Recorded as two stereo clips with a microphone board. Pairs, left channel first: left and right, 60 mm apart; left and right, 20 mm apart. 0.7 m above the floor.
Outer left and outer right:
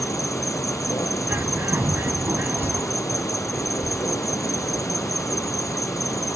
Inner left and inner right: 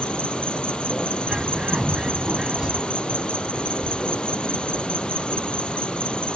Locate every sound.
0.0 s an insect: 55° left (ahead or behind)
1.3 s a bird: 35° right (ahead or behind)